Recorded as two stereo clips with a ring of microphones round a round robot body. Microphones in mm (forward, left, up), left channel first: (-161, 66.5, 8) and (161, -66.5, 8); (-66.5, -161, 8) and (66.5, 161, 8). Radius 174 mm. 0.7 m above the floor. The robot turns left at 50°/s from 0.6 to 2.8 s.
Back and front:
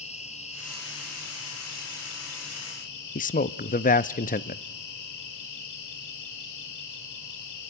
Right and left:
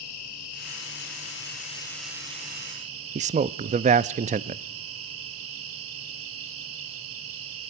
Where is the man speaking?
115° left, 0.6 m.